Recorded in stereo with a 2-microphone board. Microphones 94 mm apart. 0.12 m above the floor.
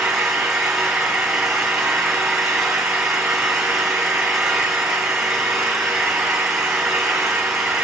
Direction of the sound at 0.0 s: 5° right (ahead or behind).